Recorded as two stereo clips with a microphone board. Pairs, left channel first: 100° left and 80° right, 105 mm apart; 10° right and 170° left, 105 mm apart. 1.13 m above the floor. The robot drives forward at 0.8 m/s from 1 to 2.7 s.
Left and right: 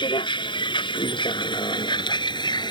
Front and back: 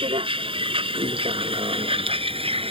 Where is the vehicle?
140° left; by 2.7 s 145° left.